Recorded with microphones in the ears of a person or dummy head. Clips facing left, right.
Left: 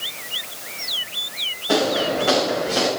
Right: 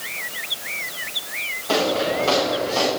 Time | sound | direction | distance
1.7 | footsteps | 15° left (ahead or behind) | 5 m